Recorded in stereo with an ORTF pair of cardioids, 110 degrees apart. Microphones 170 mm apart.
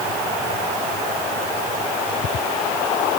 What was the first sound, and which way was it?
Only background noise.